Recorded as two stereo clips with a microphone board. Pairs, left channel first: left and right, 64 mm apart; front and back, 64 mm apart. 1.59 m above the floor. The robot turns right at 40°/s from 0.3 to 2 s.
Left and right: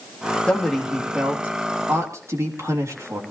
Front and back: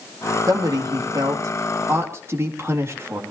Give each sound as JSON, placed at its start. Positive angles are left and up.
{"t": 0.5, "sound": "a man speaking", "azimuth_deg": 170, "distance_m": 3.0}